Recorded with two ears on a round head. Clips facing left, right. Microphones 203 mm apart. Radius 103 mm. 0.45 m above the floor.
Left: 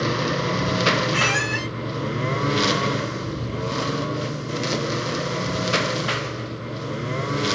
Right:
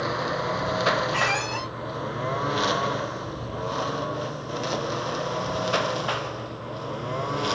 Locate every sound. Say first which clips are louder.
0.0 s a lawn mower: left 4 dB; 35° left (ahead or behind); by 7.5 s 25° left (ahead or behind)
1.1 s a squeak: left 3 dB; 20° left (ahead or behind)